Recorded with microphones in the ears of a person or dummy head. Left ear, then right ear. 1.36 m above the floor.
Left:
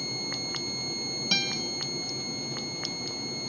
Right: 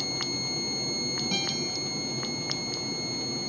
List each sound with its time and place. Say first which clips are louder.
1.3 s a guitar: left 6 dB; 55° left (ahead or behind), 4 m